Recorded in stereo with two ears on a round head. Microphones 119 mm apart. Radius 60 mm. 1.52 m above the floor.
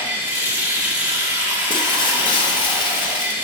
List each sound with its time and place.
0.0 s running water: 15° right (ahead or behind), 1.8 m
1.7 s breaking glass: 35° left (ahead or behind), 1.0 m